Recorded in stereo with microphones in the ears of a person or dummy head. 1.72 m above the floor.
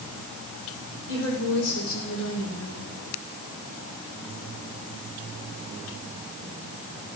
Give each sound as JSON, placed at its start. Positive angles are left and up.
{"t": 1.1, "sound": "a woman speaking", "side_deg": 70, "distance_m": 5.5}